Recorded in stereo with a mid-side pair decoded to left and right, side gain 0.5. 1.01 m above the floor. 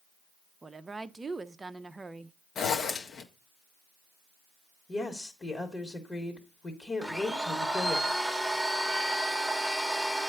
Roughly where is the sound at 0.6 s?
Ahead.